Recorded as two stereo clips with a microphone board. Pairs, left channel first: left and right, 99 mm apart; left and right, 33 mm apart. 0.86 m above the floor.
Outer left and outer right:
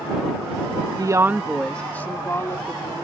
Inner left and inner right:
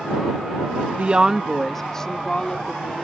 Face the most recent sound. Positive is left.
turn(degrees=35)  # may be behind; listen again after turning